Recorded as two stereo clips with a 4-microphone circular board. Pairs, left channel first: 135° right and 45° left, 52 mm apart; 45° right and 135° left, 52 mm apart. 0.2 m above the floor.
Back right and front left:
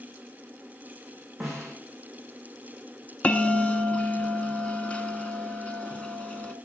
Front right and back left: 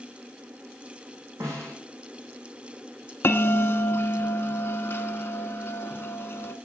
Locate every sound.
1.4 s a snare drum: 130° left, 6 m
3.2 s a bell: 75° right, 0.8 m